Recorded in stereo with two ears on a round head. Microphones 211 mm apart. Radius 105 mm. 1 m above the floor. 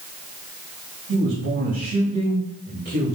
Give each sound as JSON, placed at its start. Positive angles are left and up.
{"t": 1.1, "sound": "a man speaking", "side_deg": -40, "distance_m": 4.0}